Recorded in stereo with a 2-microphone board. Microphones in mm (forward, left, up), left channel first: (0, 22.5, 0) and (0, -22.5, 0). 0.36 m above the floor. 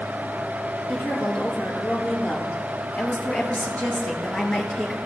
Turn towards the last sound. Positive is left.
turn(degrees=15)  # may be behind; listen again after turning